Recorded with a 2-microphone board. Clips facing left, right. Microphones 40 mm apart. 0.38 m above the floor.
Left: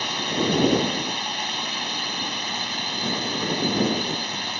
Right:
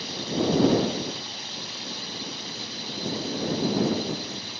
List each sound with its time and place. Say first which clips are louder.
0.0 s a drone: left 3 dB; 60° left (ahead or behind)